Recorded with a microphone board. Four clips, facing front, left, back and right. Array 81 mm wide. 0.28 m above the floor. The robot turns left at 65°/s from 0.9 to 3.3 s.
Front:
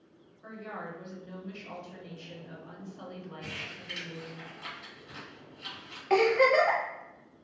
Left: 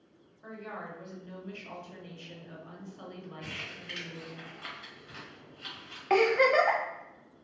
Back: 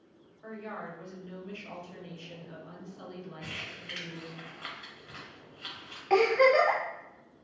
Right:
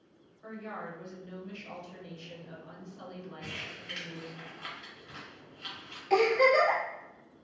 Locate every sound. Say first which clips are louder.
0.4 s a woman speaking: right 1 dB, back 1 dB; 165° right, 0.9 m; by 4.4 s 40° left, 0.9 m
3.4 s crumpling: even, front 1 dB; straight behind, 1.1 m
6.1 s a giggle: even, back 1 dB; 85° left, 0.7 m